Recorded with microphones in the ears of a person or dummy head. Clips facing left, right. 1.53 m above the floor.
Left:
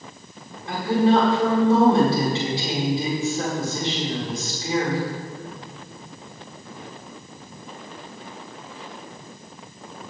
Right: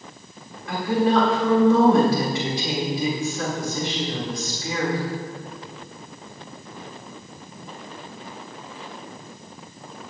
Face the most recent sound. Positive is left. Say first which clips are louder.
# left 2 dB
turn(degrees=25)  # may be behind; listen again after turning